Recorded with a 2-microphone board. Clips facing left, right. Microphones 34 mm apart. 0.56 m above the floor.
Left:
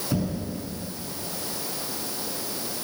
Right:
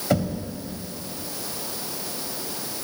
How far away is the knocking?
About 2.5 m.